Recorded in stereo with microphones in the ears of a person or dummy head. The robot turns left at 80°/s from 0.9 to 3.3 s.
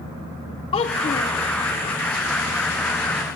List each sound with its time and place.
0.7 s a child speaking: 25° left (ahead or behind), 0.7 m